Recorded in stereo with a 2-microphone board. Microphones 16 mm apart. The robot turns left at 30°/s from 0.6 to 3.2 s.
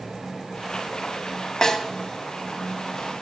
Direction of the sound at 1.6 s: 30° left (ahead or behind).